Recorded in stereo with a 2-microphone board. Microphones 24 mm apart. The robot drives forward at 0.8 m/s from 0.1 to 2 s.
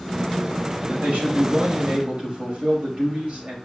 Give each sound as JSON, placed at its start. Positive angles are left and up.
{"t": 0.9, "sound": "a man speaking", "side_deg": -85, "distance_m": 5.0}